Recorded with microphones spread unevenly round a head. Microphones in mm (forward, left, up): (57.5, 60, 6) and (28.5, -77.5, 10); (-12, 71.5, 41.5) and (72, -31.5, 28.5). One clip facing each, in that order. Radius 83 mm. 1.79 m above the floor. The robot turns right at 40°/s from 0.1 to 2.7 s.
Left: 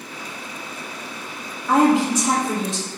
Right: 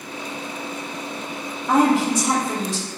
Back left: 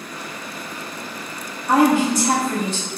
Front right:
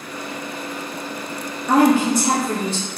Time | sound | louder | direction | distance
1.7 | a woman speaking | left 1 dB, front right 1 dB | 25° right | 1.1 m